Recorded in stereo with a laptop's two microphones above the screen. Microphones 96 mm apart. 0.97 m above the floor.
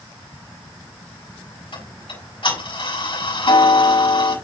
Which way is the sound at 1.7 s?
70° left (ahead or behind).